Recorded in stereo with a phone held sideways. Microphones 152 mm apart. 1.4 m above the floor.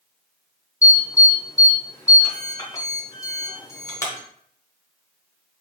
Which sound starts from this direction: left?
An alarm, at 0.8 s.